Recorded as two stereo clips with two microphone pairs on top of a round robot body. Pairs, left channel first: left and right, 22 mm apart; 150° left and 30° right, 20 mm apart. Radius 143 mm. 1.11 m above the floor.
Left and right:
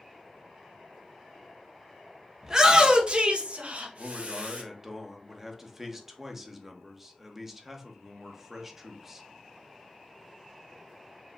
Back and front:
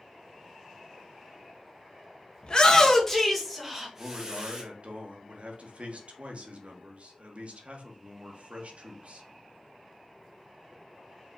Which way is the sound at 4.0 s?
20° right.